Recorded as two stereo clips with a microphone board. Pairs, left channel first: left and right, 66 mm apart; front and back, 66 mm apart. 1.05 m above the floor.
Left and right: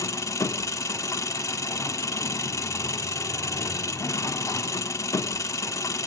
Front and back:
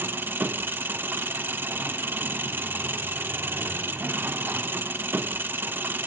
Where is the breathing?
I don't hear breathing.